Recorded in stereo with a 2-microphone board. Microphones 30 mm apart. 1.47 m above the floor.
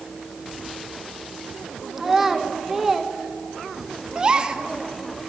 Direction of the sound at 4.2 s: 25° right (ahead or behind).